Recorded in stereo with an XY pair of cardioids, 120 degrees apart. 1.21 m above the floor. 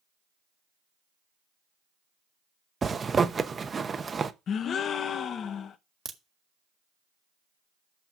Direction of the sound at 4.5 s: 50° left.